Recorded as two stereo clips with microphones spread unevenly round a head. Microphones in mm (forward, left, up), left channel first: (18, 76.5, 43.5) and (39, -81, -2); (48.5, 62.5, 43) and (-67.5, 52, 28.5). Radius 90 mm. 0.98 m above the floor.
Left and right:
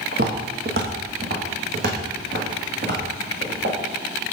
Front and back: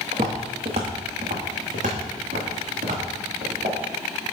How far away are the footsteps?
About 1.3 m.